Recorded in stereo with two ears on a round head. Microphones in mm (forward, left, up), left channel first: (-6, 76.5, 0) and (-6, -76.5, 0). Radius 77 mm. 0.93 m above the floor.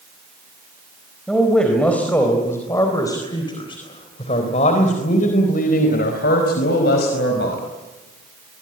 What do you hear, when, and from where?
1.3 s a man speaking: centre (ahead or behind), 4.5 m; by 7.6 s 75° left (ahead or behind), 5 m